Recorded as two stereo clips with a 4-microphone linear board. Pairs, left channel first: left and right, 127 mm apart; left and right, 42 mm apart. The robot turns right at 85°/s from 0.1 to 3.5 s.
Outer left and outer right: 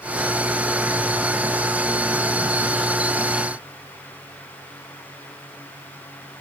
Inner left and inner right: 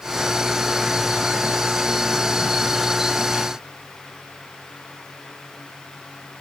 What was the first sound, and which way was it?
Only background noise.